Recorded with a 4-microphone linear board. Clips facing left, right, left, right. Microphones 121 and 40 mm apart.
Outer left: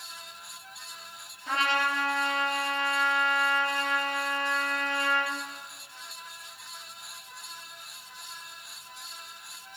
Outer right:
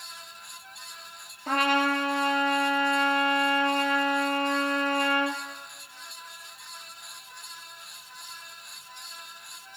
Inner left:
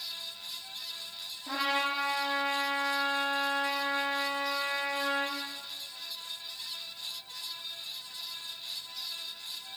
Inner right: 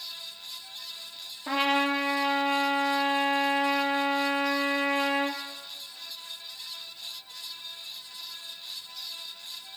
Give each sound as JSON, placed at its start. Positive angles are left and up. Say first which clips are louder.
{"t": 1.5, "sound": "a trumpet", "louder": "outer right 4 dB, inner right 5 dB", "side_deg": -50, "distance_m": 2.5}